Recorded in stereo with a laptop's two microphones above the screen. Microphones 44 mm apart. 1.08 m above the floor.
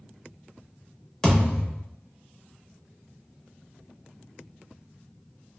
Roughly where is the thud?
Centre.